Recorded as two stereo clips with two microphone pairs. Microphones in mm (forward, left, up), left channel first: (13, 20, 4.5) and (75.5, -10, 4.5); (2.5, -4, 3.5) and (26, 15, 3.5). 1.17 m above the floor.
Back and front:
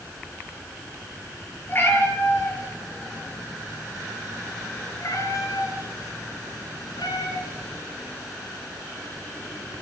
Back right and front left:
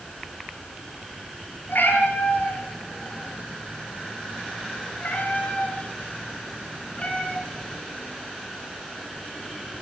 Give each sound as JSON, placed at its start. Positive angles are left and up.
{"t": 1.7, "sound": "a cat meowing", "azimuth_deg": -145, "distance_m": 7.5}